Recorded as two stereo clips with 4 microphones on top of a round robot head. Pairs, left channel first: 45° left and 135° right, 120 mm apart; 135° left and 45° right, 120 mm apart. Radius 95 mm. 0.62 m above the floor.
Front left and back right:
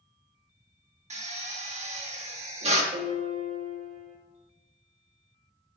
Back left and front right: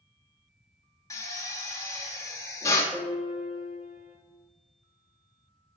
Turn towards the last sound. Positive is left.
turn(degrees=-110)